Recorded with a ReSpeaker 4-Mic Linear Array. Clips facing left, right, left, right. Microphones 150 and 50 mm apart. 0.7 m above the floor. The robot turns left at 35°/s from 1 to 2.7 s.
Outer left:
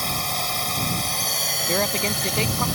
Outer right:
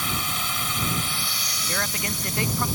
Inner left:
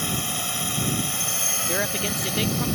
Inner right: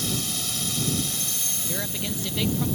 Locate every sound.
0.0 s a drone: 140° left; by 2.8 s 80° left
1.7 s a woman speaking: 55° left; by 2.7 s 25° left